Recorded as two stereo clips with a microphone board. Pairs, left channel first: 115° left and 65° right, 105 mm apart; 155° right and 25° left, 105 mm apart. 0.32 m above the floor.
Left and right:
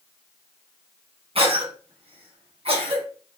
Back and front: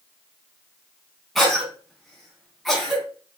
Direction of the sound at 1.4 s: 70° right.